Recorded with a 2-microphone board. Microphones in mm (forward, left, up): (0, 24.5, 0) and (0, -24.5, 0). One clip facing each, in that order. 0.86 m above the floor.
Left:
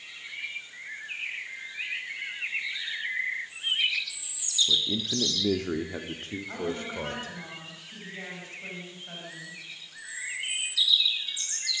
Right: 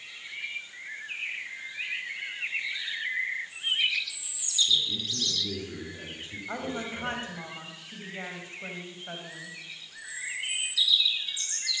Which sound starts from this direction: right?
A woman speaking, at 6.5 s.